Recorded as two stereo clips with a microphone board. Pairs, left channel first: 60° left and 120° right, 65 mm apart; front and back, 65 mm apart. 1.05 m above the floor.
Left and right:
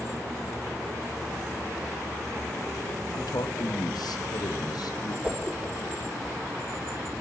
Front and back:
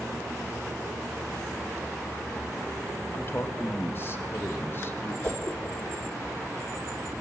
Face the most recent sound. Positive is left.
turn(degrees=-55)